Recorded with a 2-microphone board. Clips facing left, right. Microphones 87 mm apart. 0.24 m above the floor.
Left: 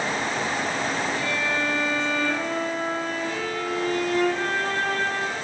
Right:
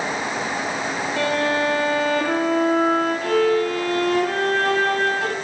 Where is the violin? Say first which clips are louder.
Right 6 dB; 80° right, 6 m.